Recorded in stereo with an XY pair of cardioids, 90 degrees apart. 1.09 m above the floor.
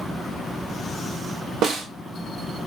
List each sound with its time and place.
1.6 s a snare drum: 70° right, 0.9 m